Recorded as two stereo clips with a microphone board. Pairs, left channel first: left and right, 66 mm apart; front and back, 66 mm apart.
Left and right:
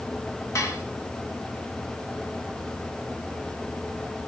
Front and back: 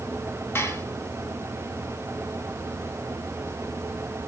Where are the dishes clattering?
55° left, 2.5 m.